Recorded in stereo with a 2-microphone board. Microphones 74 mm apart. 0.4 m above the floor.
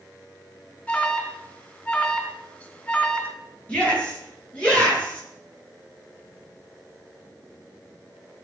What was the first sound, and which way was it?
An alarm, 20° left (ahead or behind).